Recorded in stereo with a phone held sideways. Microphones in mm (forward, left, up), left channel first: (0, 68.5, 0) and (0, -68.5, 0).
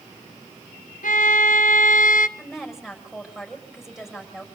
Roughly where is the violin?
Left.